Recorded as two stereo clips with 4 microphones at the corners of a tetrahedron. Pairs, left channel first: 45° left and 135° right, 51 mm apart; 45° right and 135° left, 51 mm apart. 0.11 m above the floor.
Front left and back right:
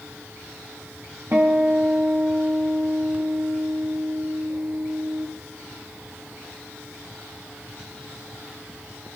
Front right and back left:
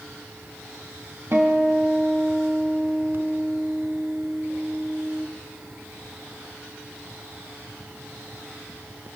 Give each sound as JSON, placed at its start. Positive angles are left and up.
{"t": 1.3, "sound": "a guitar", "azimuth_deg": 175, "distance_m": 3.5}